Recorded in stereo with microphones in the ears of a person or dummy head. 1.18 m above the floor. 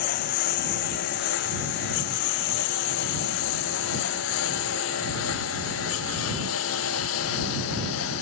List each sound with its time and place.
0.0 s a lawn mower: 55° left (ahead or behind); by 8.2 s 85° left